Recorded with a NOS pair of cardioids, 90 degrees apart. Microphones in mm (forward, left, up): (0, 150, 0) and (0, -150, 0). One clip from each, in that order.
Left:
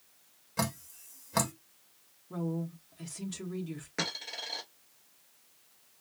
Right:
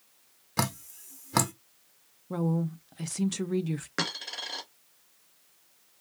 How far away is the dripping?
About 1.2 m.